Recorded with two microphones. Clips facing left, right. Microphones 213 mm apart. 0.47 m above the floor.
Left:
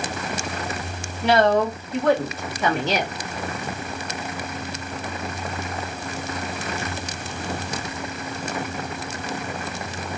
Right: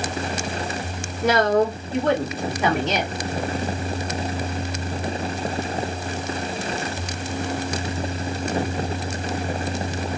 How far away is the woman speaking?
About 1.6 m.